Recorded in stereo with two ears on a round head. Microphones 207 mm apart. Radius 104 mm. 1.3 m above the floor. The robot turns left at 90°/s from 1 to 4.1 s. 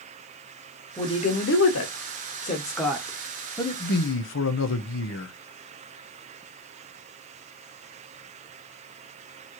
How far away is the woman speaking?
About 1.0 m.